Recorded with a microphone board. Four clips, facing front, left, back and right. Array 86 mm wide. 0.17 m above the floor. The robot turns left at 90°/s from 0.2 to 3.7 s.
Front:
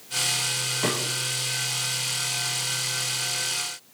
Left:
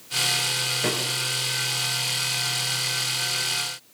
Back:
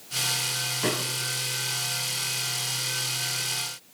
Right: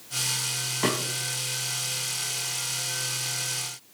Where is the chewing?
I don't hear chewing.